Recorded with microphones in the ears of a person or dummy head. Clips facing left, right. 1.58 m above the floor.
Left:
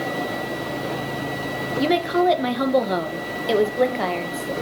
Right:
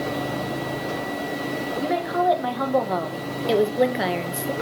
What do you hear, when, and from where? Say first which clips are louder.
1.8 s a woman speaking: left 5 dB; 40° left (ahead or behind), 1.9 m; by 4.5 s 20° right (ahead or behind), 1.7 m